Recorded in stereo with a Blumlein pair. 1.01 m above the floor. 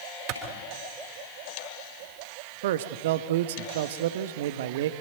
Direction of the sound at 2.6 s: 55° right.